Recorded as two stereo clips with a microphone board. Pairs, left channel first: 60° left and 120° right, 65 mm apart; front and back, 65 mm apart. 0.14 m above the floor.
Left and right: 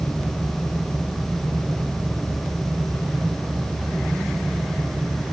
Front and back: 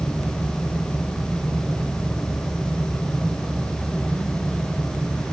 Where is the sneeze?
I don't hear a sneeze.